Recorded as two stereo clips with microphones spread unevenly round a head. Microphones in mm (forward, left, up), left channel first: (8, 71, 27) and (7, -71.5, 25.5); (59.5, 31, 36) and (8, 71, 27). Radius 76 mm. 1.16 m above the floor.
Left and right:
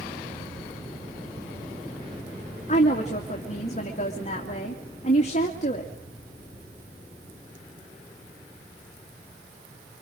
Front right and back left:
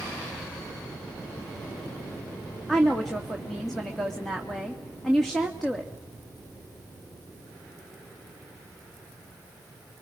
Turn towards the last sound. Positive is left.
turn(degrees=50)